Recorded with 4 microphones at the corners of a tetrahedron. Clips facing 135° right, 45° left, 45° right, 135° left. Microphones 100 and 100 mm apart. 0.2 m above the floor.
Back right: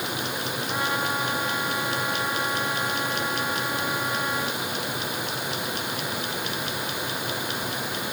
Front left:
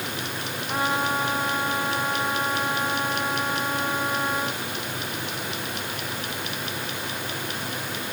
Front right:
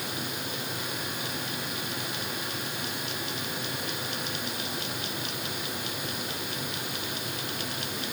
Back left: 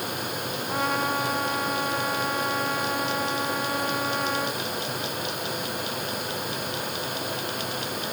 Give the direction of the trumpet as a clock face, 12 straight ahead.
8 o'clock.